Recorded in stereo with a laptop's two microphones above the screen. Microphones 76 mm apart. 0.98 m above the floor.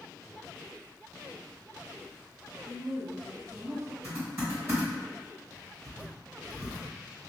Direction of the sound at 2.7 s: 35° right (ahead or behind).